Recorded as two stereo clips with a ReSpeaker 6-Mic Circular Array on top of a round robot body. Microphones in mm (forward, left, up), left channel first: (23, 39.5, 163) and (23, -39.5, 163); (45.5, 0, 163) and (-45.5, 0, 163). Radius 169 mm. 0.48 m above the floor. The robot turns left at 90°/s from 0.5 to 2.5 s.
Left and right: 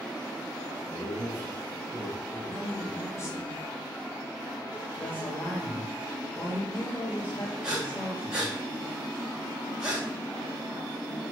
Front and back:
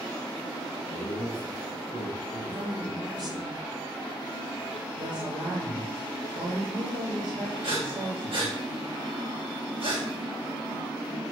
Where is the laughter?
20° right, 5.5 m; by 3.4 s 170° right, 5.5 m.